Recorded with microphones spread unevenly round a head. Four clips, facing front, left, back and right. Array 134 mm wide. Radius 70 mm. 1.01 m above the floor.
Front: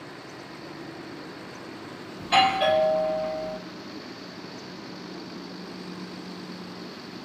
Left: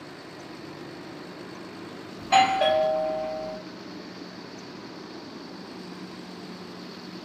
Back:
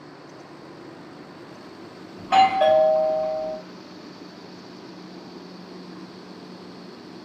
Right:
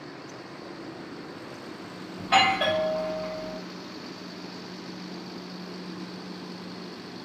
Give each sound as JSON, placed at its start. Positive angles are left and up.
{"t": 2.2, "sound": "a doorbell", "azimuth_deg": 180, "distance_m": 2.5}